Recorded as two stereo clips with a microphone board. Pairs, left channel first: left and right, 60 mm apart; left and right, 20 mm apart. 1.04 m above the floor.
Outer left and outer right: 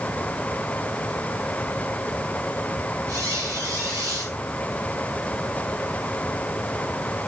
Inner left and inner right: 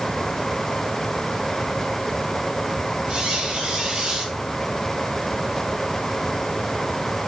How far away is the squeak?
About 3.5 m.